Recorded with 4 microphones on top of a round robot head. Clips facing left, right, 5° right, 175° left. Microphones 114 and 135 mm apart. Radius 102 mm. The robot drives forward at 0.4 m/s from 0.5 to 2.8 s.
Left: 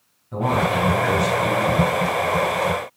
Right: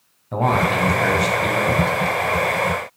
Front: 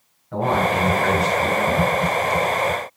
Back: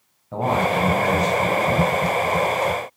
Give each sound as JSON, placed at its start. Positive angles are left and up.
{"t": 0.3, "sound": "a man speaking", "azimuth_deg": -110, "distance_m": 4.0}